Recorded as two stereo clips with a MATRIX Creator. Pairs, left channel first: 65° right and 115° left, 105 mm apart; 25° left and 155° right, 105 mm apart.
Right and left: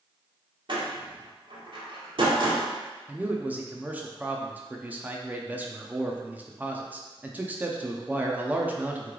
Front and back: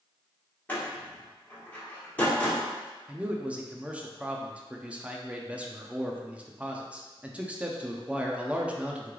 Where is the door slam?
95° left, 1.2 m.